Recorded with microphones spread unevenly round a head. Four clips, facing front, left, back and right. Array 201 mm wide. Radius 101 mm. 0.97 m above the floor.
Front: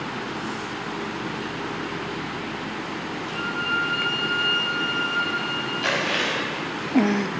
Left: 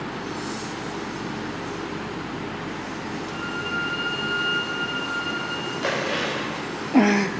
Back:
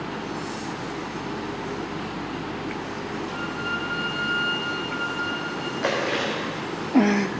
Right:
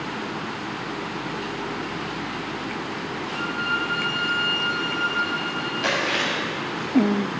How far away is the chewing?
About 4.5 m.